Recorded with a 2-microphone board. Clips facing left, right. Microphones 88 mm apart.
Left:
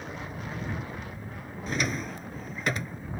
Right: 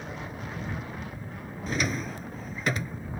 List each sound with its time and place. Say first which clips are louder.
1.7 s a drawer: right 1 dB; centre (ahead or behind)